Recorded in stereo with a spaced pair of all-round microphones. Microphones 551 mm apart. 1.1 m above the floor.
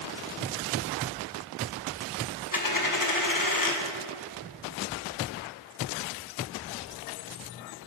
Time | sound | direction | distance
2.5 | a dropped coin | 35° left (ahead or behind) | 0.9 m